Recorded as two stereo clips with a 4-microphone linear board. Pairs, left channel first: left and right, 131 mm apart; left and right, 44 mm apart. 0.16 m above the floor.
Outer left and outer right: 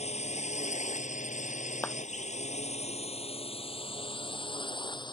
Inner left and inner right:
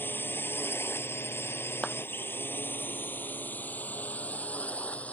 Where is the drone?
55° left (ahead or behind); by 5.1 s 35° left (ahead or behind).